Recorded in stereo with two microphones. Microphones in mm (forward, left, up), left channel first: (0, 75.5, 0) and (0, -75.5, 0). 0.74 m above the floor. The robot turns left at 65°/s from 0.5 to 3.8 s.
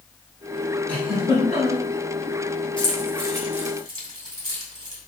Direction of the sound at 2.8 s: 30° left (ahead or behind).